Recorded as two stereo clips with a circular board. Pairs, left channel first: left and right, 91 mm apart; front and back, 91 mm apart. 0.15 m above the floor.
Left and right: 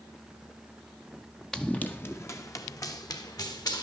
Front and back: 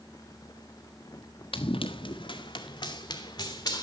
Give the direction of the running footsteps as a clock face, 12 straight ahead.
12 o'clock.